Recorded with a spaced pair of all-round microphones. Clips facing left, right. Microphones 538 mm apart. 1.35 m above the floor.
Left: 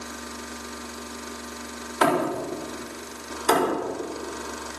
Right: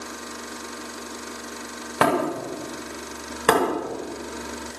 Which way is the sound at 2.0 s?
85° right.